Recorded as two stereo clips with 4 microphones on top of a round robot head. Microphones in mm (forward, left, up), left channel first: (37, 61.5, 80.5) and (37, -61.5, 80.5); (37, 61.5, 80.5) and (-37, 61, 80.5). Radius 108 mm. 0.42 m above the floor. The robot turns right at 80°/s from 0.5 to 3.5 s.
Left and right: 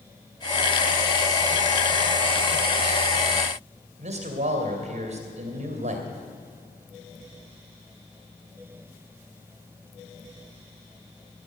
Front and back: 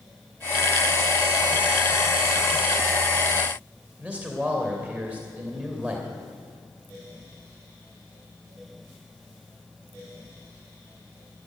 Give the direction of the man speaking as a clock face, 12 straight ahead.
4 o'clock.